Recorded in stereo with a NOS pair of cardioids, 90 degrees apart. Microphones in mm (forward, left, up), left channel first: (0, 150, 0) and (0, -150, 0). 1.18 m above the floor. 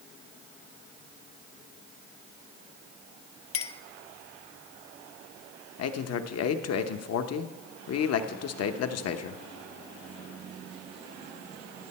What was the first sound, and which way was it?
A clink, 55° left.